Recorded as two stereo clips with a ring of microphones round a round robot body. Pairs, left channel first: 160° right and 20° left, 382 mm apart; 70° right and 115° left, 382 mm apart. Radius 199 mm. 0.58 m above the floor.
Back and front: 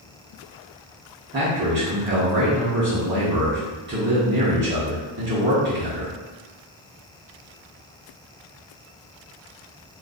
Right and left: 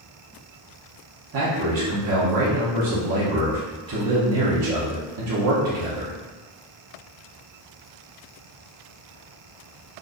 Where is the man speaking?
80° left, 1.1 m.